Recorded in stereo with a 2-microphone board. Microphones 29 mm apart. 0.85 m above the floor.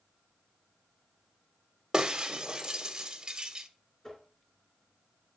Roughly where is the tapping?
Left.